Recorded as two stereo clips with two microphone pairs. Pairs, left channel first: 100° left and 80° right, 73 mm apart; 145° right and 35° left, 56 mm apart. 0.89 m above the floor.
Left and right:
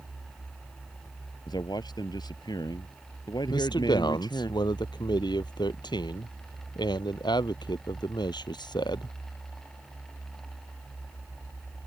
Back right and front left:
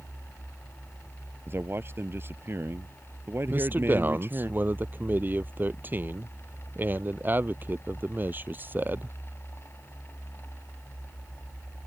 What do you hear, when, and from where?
1.5 s a man speaking: 80° left
3.5 s a man speaking: 90° left